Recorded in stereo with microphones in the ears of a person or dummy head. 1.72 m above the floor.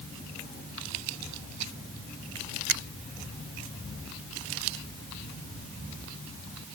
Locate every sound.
2.7 s a finger snap: 65° right (ahead or behind)